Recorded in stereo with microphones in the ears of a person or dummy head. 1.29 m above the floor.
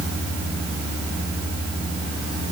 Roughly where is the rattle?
I don't hear a rattle.